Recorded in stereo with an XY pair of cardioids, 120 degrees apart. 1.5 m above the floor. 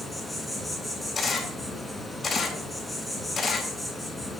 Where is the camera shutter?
30° left, 2.5 m.